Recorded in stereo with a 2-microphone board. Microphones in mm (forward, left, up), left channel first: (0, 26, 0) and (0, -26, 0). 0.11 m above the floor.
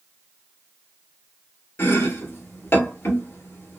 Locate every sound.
1.8 s chopping: 55° left (ahead or behind), 1.2 m